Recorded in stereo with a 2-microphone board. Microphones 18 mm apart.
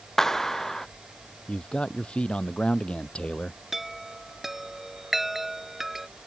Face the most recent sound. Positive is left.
turn(degrees=-10)  # may be behind; listen again after turning